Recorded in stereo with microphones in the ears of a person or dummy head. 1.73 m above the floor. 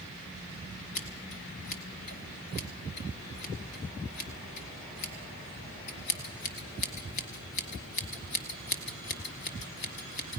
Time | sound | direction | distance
0.9 | scissors | 45° left (ahead or behind) | 1.6 m